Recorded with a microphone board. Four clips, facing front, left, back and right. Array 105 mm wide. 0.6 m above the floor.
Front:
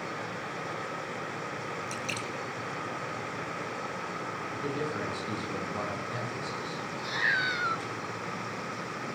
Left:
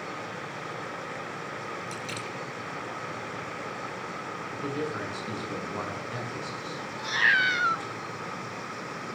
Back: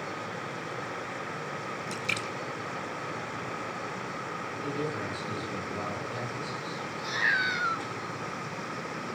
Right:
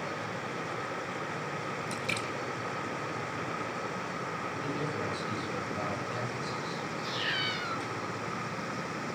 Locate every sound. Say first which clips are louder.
1.9 s a splash: right 1 dB, back 1 dB; 155° right, 1.7 m
4.5 s a man speaking: left 5 dB, even; 65° left, 8 m
7.0 s a cat meowing: left 9 dB, back 1 dB; 95° left, 0.8 m